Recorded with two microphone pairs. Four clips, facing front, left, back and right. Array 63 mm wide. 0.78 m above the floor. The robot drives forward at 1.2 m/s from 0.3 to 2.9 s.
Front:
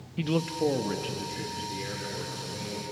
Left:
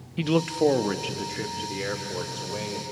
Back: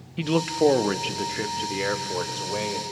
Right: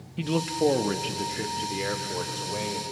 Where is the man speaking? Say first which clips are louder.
Left 3 dB, back 6 dB; 140° left, 0.6 m; by 2.8 s 175° left, 3.5 m.